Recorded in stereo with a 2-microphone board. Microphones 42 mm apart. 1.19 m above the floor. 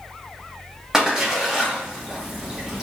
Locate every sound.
0.9 s a splash: 15° right (ahead or behind), 1.2 m